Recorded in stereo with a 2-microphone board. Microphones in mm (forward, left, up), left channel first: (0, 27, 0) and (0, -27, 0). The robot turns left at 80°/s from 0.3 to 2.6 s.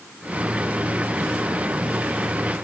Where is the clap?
I don't hear a clap.